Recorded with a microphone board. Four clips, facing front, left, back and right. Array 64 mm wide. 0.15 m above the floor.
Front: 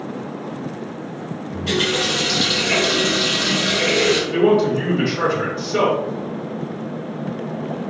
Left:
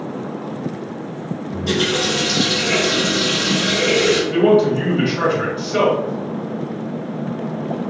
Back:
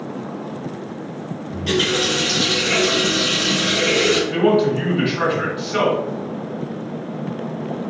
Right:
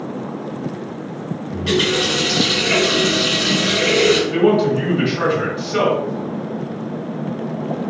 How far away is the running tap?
About 1.9 m.